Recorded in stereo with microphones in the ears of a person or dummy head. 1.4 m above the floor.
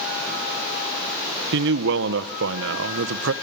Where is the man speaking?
70° right (ahead or behind), 1.1 m.